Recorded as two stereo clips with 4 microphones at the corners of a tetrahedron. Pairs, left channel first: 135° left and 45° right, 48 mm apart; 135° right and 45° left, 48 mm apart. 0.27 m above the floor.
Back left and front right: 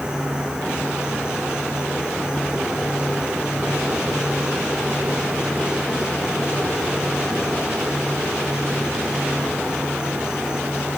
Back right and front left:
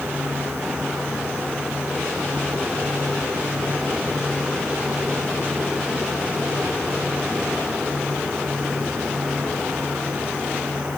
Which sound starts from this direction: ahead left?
An insect, at 0.0 s.